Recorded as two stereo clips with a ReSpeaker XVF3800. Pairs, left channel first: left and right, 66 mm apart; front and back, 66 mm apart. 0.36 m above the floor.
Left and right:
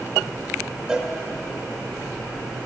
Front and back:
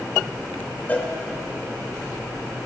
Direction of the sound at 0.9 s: 25° right.